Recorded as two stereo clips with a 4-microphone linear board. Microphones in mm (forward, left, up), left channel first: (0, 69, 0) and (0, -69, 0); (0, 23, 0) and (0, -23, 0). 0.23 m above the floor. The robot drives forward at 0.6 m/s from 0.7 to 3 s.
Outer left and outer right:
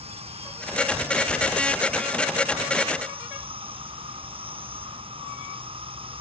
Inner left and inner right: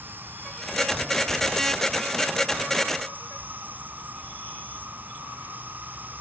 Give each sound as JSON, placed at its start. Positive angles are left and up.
{"t": 0.0, "sound": "an insect", "side_deg": -50}